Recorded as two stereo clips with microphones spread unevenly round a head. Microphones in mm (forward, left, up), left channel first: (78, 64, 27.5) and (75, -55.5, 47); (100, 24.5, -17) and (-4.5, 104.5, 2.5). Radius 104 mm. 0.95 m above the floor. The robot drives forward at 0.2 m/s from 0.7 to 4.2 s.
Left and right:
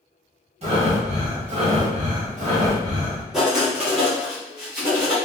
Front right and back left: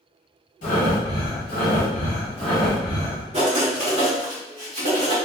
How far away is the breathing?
About 1.3 m.